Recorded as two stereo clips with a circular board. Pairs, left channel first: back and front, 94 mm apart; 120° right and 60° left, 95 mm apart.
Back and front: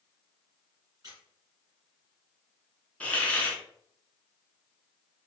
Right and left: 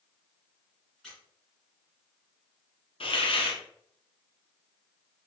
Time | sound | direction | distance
1.0 | a squeak | 40° right | 1.7 m
3.0 | a hiss | 105° right | 0.9 m